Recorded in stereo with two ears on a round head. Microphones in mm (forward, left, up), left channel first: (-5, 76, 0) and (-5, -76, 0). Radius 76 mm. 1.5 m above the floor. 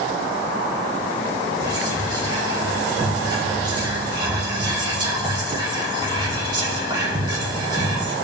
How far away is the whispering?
About 3 m.